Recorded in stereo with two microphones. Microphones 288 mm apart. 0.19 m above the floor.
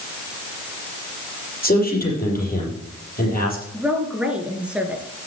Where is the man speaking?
30° left (ahead or behind), 6.5 m.